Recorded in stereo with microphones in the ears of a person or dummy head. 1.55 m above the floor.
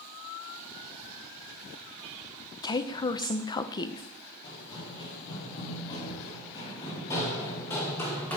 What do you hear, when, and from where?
2.6 s a woman speaking: 25° left (ahead or behind), 0.5 m
4.4 s running footsteps: 30° left (ahead or behind), 5.5 m; by 8.4 s 10° left (ahead or behind), 3.5 m